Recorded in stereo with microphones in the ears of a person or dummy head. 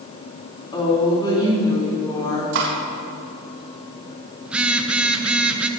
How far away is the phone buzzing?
About 0.8 m.